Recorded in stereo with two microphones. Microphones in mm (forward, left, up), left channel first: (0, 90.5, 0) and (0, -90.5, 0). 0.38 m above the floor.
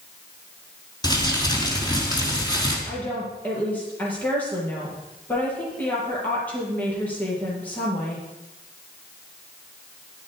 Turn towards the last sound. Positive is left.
turn(degrees=10)  # may be behind; listen again after turning